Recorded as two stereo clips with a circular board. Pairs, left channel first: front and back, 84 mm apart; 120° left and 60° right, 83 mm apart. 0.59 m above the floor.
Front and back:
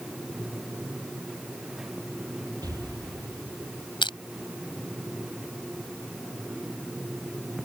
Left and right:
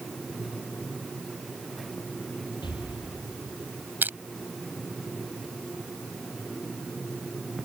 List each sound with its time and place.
2.6 s an explosion: 140° left
4.0 s crushing: 5° left